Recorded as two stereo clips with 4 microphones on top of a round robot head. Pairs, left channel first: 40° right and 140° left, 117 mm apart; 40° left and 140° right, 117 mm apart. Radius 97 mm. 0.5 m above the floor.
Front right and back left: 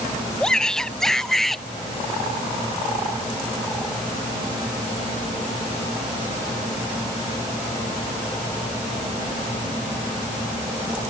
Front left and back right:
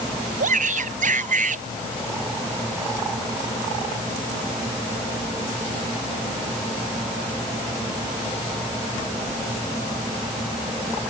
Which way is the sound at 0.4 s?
125° right.